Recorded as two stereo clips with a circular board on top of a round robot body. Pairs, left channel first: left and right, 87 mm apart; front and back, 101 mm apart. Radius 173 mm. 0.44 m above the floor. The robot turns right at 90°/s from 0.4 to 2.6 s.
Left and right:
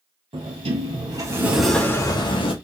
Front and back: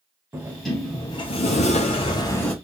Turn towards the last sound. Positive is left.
turn(degrees=85)